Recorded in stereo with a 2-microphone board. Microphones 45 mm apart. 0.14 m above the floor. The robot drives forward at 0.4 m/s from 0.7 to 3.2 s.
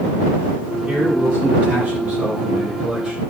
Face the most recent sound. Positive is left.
turn(degrees=-25)  # may be behind; listen again after turning